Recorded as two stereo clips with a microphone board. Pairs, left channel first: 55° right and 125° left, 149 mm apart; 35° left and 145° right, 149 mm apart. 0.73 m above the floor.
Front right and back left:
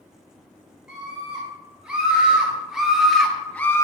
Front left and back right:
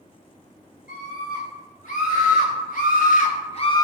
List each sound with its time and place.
0.9 s a scream: 45° left, 4 m; by 3.9 s 10° right, 0.6 m